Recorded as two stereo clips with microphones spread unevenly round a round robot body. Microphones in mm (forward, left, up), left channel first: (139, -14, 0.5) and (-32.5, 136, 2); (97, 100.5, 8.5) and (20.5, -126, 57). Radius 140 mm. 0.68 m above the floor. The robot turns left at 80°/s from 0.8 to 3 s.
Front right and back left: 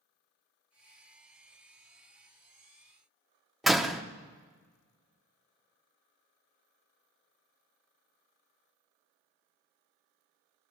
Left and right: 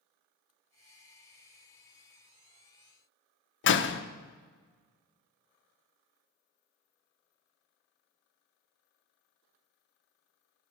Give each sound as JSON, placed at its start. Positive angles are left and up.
{"t": 3.6, "sound": "a door slam", "azimuth_deg": 50, "distance_m": 0.8}